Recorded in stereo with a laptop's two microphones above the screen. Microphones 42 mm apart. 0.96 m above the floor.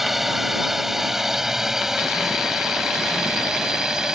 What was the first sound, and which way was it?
A drone, 5° right (ahead or behind).